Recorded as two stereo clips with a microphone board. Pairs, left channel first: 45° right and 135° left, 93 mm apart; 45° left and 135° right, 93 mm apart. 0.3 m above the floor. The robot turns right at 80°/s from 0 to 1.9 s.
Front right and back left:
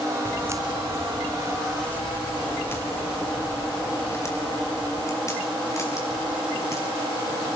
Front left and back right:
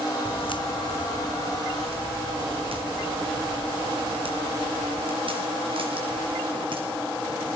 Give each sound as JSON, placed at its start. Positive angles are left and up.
{"t": 0.2, "sound": "footsteps", "azimuth_deg": 25, "distance_m": 0.9}